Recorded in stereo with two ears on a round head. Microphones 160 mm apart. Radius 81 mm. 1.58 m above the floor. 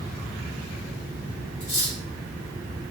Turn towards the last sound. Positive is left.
turn(degrees=65)  # may be behind; listen again after turning